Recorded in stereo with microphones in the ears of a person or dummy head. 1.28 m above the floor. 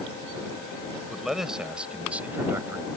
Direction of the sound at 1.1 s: 5° right (ahead or behind).